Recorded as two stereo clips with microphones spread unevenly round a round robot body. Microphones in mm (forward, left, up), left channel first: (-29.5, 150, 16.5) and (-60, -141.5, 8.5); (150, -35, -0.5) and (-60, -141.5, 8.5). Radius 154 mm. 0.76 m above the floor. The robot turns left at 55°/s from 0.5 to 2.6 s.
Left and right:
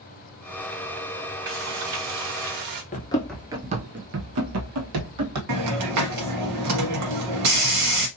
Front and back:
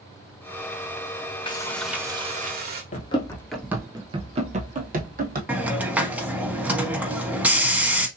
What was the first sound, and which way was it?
Frying, 40° right.